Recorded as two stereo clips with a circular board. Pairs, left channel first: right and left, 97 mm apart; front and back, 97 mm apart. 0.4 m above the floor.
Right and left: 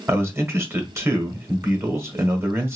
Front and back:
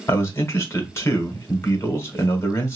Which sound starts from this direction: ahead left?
A man speaking, at 0.1 s.